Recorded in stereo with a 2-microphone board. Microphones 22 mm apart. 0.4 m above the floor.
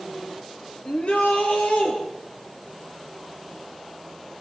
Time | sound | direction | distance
0.8 | a shout | 75° left (ahead or behind) | 7 m